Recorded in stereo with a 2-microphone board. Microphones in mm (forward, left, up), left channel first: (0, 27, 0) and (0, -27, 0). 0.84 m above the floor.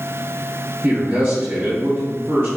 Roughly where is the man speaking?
Right.